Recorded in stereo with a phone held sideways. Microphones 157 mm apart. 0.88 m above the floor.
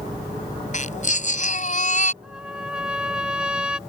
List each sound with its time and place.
0.7 s a baby crying: 50° left (ahead or behind)
2.2 s a trumpet: 5° right (ahead or behind)